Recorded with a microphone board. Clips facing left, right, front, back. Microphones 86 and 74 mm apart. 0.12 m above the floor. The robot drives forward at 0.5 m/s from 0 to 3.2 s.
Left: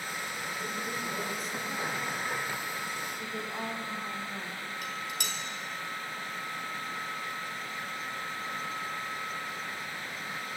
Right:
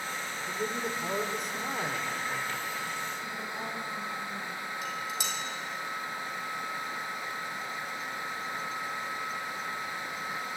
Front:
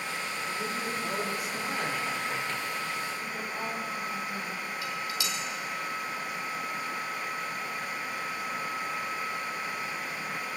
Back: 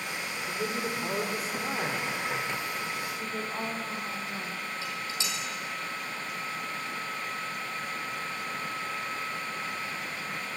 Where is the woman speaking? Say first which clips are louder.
Left 1 dB, back 1 dB; 135° left, 7 m.